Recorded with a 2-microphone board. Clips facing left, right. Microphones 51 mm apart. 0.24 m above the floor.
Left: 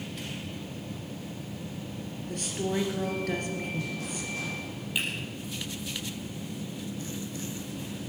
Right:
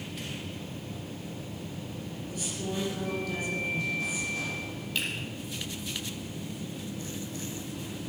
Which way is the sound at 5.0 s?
15° left (ahead or behind).